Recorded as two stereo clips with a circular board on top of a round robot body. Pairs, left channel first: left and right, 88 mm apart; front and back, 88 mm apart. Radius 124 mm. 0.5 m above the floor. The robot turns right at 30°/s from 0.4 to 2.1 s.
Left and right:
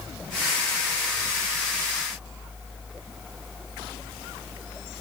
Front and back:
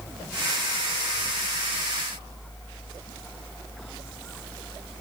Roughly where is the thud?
No thud in this recording.